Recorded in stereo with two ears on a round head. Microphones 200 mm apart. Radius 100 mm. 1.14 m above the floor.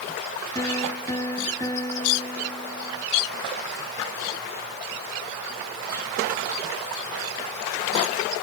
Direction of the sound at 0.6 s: 15° left (ahead or behind).